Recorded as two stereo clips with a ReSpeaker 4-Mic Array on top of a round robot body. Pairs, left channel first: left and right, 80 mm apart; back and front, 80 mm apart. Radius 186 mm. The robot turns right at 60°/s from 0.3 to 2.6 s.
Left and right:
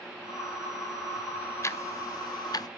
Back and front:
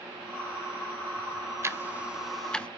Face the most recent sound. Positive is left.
turn(degrees=105)